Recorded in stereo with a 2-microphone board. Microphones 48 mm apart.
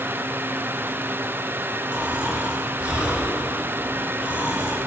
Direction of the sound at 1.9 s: 25° right (ahead or behind).